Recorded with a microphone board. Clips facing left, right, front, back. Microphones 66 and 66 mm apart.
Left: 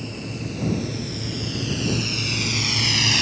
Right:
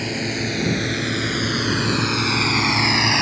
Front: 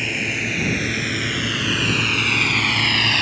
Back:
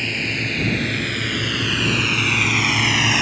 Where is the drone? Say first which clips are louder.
Right 7 dB, even; 85° right; by 3.2 s 110° right.